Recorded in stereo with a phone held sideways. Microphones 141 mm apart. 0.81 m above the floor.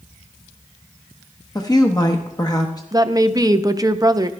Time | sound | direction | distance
1.6 | a woman speaking | 30° left (ahead or behind) | 0.9 m
2.9 | a woman speaking | 25° right (ahead or behind) | 0.5 m